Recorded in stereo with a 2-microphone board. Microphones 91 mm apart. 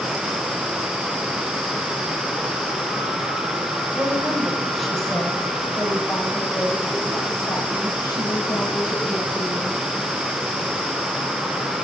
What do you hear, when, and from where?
4.0 s a woman speaking: 10° right (ahead or behind), 5.5 m; by 9.8 s 55° left (ahead or behind), 8.5 m